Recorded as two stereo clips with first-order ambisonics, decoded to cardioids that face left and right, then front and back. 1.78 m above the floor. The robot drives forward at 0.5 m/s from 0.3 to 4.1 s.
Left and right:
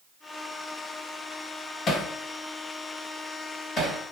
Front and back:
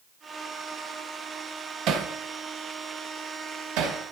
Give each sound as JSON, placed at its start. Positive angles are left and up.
{"t": 1.9, "sound": "hammering", "azimuth_deg": 145, "distance_m": 1.2}